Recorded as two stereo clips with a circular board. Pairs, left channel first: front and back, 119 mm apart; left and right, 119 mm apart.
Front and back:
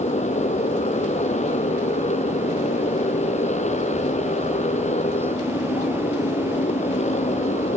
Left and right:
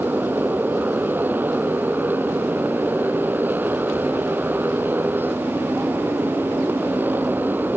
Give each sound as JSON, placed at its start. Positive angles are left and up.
{"t": 0.0, "sound": "a motorcycle", "azimuth_deg": -15}